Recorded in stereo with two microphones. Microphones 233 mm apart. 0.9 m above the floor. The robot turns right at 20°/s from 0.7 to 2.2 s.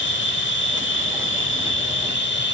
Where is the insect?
80° left, 1.0 m; by 2.5 s 110° left, 1.0 m.